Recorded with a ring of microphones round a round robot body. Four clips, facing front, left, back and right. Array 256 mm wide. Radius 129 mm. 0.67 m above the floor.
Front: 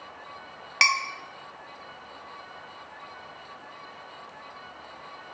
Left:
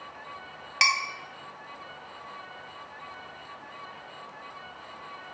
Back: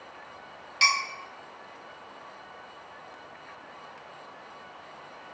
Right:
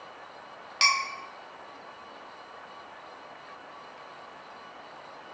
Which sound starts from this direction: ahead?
Dishes clattering, at 0.8 s.